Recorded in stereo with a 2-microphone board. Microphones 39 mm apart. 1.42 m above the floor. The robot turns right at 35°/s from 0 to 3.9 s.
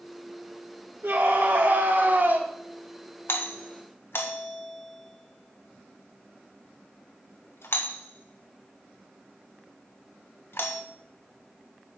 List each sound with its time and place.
1.0 s a scream: 95° right, 3 m; by 2.5 s 45° right, 3 m
3.3 s a doorbell: 70° left (ahead or behind), 1.5 m; by 10.8 s 80° left, 1.5 m